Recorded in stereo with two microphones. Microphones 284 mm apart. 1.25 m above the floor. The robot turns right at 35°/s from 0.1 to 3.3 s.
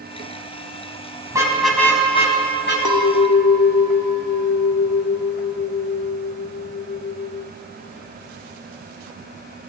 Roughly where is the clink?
Left.